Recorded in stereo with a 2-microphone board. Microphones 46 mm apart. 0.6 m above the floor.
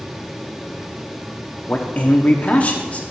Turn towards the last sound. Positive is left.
turn(degrees=35)  # may be behind; listen again after turning